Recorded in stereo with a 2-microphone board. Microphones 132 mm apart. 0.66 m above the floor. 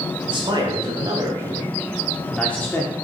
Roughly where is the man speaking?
Right.